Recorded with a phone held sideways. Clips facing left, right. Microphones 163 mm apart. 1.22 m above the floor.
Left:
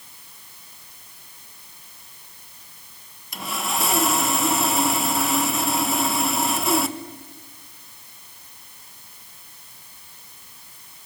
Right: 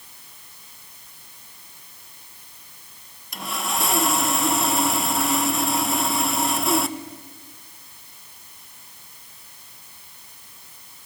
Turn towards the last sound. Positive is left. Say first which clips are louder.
# even
turn(degrees=0)  # may be behind; listen again after turning